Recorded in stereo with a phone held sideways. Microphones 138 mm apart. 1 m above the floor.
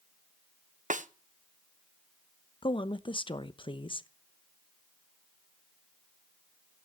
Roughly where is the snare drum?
Right.